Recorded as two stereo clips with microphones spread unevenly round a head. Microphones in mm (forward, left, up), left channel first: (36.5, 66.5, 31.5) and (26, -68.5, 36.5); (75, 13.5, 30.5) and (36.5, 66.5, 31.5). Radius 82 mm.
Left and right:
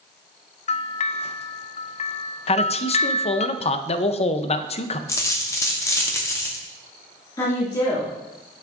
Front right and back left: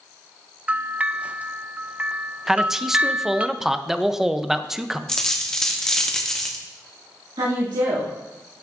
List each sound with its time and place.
0.7 s a bell: 55° left, 0.5 m
2.5 s a man speaking: 40° left, 0.6 m
5.1 s a dropped coin: 25° left, 0.9 m
7.4 s a woman speaking: 155° left, 2.5 m